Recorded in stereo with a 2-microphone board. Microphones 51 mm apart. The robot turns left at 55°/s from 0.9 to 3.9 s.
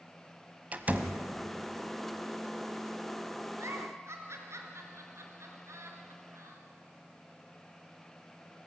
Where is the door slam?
30° right (ahead or behind), 1.4 m; by 1.2 s 25° right (ahead or behind), 1.4 m.